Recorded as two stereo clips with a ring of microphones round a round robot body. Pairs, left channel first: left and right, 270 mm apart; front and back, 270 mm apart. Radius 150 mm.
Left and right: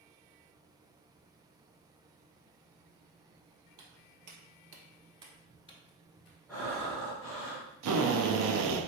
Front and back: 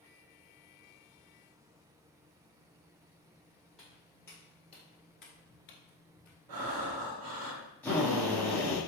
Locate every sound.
3.8 s footsteps: 90° right, 1.6 m; by 6.4 s 55° left, 1.3 m
6.5 s breathing: 175° left, 1.1 m
7.8 s a drill: 85° right, 0.8 m